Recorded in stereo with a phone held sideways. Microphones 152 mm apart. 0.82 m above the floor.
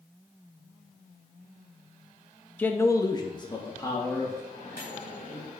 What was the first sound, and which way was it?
A man speaking, 10° left (ahead or behind).